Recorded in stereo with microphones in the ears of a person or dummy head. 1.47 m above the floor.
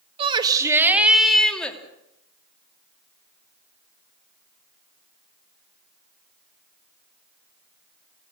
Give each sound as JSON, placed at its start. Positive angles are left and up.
{"t": 0.2, "sound": "a shout", "side_deg": -30, "distance_m": 2.0}